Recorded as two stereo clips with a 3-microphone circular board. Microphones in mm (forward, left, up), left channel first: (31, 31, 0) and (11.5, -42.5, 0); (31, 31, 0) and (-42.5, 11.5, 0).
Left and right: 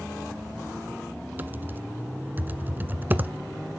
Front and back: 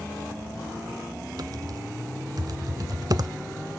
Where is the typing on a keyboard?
165° right, 0.5 m.